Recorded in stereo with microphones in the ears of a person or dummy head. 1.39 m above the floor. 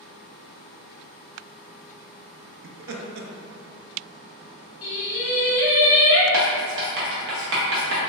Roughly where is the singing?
Left.